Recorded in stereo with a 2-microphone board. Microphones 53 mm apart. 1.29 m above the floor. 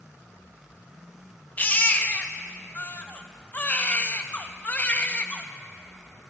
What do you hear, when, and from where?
1.6 s a baby crying: 35° left (ahead or behind), 0.6 m